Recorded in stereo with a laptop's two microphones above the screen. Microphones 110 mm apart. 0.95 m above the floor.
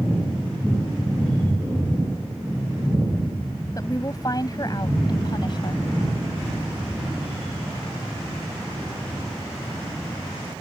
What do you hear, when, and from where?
3.8 s a woman speaking: 35° left (ahead or behind); by 5.9 s 45° left (ahead or behind)